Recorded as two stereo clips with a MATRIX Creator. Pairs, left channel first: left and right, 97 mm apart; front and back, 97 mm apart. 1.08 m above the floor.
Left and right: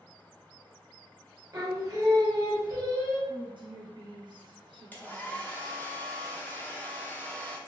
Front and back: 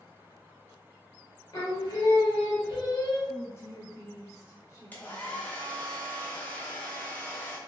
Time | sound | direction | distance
1.5 | singing | 40° right | 0.8 m
3.3 | a woman speaking | 60° right | 0.7 m
4.9 | a hair dryer | 45° left | 0.5 m